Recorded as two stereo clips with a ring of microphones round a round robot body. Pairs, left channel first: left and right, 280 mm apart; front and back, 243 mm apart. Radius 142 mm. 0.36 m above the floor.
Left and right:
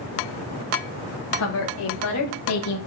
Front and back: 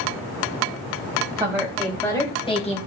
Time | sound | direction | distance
1.4 | a woman speaking | 105° left | 2.5 m